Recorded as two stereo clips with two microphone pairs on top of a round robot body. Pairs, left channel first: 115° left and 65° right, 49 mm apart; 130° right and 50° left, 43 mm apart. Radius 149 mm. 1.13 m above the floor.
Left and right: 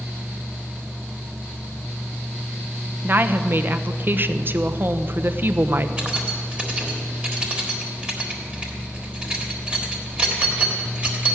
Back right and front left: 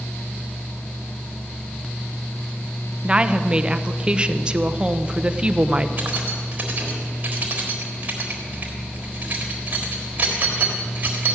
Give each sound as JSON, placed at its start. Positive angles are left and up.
{"t": 3.0, "sound": "a woman speaking", "azimuth_deg": -30, "distance_m": 0.8}
{"t": 6.0, "sound": "keys jangling", "azimuth_deg": 0, "distance_m": 1.5}